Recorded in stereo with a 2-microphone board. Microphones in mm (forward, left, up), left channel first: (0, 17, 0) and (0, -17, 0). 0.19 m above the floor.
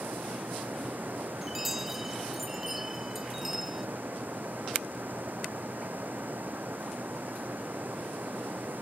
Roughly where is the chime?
Centre.